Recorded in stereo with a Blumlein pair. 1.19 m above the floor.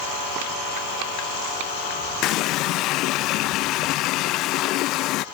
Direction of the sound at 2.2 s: 40° left.